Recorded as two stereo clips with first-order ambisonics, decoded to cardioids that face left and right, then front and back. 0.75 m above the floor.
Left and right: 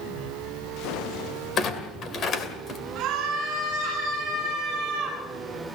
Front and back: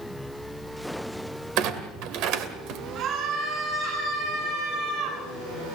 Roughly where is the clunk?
Behind left.